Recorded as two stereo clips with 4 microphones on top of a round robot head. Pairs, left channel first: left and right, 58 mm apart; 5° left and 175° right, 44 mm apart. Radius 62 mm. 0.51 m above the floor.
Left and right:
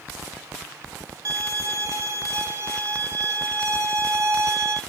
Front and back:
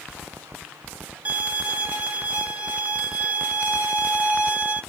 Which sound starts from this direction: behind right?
A violin, at 1.2 s.